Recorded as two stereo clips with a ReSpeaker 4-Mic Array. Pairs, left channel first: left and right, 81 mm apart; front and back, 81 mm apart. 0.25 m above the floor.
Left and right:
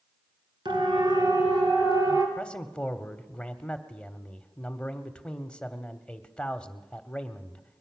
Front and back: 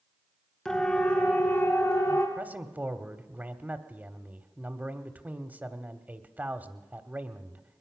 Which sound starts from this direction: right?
A siren, at 0.7 s.